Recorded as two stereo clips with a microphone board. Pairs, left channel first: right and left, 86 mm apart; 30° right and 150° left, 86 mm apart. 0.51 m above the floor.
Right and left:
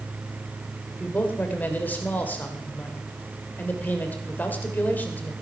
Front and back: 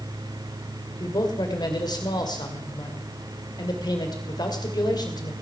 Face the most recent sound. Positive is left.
turn(degrees=-25)